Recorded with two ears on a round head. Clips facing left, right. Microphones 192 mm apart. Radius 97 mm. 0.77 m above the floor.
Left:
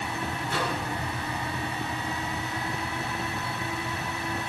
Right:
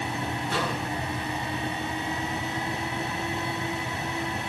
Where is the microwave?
45° right (ahead or behind), 7.5 m.